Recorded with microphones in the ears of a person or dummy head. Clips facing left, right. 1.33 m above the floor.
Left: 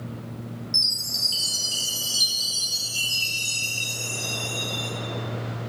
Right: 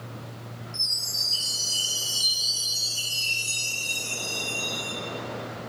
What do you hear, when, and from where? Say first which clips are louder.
0.7 s a chime: left 4 dB; 35° left (ahead or behind), 3.5 m